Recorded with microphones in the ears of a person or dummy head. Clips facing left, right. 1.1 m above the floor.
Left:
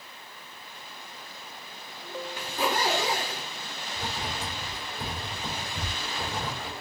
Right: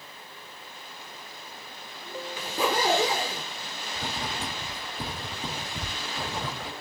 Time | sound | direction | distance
2.4 | a zipper | 70° right (ahead or behind) | 1.4 m
4.0 | writing | 45° right (ahead or behind) | 1.7 m